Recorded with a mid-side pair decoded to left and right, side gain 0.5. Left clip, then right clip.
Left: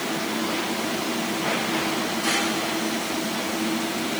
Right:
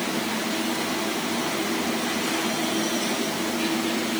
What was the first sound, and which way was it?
Only background noise.